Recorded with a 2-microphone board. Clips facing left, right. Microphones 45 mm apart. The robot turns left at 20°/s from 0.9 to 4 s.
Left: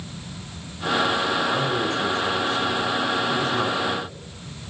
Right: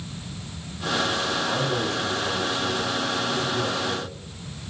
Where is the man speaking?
160° left, 5.5 m; by 4.1 s 105° left, 5.5 m.